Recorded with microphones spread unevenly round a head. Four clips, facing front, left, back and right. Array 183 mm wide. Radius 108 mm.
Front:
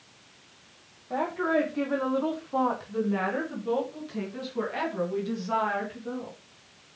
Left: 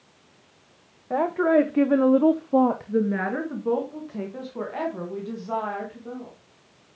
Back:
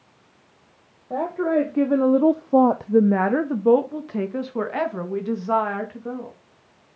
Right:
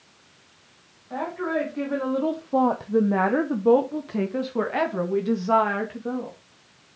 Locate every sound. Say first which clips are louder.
1.1 s a woman speaking: left 7 dB, back 5 dB; 120° left, 1.3 m; by 6.4 s 110° right, 2.5 m